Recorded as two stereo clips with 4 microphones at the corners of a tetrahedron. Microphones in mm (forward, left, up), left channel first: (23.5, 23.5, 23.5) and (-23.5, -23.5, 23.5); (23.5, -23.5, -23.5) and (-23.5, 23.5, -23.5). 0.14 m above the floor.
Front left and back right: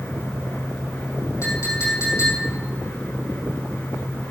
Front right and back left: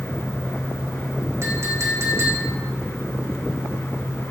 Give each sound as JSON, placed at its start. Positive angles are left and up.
{"t": 1.4, "sound": "a clink", "azimuth_deg": 90, "distance_m": 3.0}